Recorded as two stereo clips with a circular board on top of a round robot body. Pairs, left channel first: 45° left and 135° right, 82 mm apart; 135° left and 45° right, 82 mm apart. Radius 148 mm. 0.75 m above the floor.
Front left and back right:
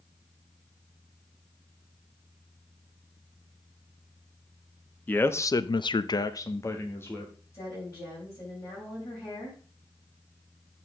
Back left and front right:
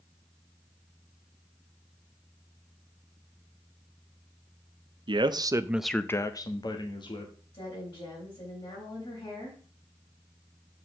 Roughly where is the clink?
No clink in this recording.